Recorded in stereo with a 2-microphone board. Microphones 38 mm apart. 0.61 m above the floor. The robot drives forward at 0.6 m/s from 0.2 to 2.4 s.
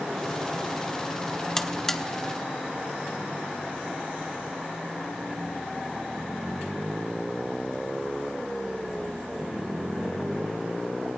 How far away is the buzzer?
About 0.8 m.